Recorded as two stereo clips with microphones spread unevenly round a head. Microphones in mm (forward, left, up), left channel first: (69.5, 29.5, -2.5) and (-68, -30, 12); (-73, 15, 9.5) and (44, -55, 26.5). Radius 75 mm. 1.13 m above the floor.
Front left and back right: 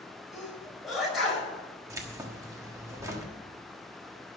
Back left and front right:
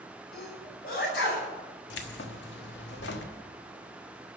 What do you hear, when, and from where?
0.3 s a sneeze: 115° left, 5.5 m
1.9 s keys jangling: 135° left, 1.3 m